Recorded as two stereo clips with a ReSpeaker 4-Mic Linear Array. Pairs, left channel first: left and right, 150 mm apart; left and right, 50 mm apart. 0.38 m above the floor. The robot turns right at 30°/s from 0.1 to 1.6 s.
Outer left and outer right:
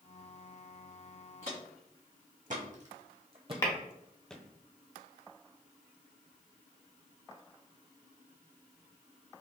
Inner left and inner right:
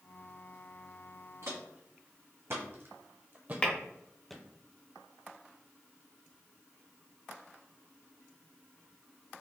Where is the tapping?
25° left (ahead or behind), 1.0 m.